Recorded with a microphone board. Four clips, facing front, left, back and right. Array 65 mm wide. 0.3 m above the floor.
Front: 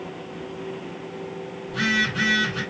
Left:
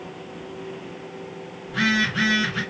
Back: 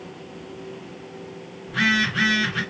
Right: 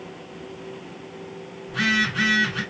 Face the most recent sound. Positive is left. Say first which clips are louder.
# left 1 dB, back 2 dB
turn(degrees=160)